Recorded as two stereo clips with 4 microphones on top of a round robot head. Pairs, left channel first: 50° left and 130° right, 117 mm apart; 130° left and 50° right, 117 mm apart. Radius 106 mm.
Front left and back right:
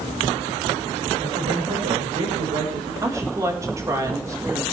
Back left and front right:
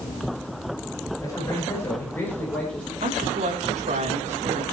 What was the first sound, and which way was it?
A man speaking, 165° right.